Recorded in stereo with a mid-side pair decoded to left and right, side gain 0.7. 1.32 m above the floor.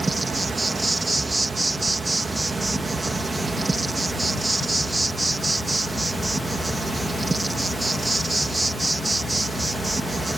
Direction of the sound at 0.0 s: 15° right.